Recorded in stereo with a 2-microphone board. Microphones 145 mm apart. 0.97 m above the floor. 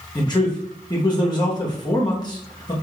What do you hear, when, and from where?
0.1 s a man speaking: 30° left (ahead or behind), 1.0 m